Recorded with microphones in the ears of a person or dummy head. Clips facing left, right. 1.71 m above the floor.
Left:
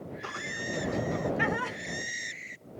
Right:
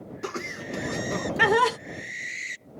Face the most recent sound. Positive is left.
turn(degrees=-85)